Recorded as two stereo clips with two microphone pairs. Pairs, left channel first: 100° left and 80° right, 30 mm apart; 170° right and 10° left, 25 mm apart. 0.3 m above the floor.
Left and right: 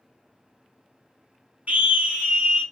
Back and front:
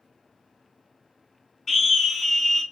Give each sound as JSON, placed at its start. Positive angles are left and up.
{"t": 1.7, "sound": "a scream", "azimuth_deg": -95, "distance_m": 2.5}